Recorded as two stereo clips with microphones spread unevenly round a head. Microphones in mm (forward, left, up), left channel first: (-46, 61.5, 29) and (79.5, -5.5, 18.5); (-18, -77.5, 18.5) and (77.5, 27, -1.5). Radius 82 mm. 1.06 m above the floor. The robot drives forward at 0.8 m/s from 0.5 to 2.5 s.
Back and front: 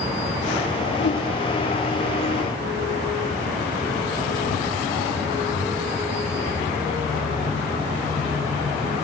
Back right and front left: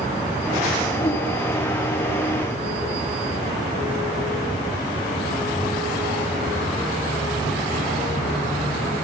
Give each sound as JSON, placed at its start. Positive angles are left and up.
{"t": 1.0, "sound": "a whoosh", "azimuth_deg": 165, "distance_m": 0.6}